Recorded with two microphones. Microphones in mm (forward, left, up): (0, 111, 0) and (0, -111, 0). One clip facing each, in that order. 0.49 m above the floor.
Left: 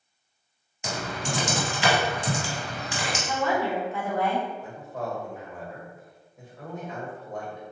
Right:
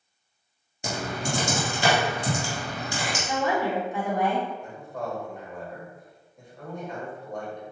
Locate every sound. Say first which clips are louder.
0.8 s typing on a keyboard: right 2 dB; 40° right (ahead or behind), 1.5 m
3.3 s a woman speaking: right 1 dB; 15° right (ahead or behind), 0.8 m
4.6 s a man speaking: even; 5° left (ahead or behind), 1.6 m